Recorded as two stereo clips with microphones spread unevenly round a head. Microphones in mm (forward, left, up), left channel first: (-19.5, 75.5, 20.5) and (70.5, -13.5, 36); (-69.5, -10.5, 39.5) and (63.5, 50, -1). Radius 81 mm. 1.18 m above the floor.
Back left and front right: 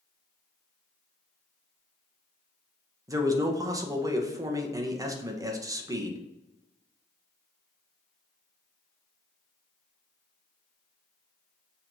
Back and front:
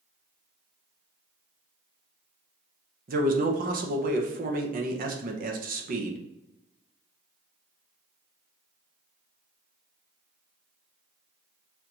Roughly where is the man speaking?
Ahead.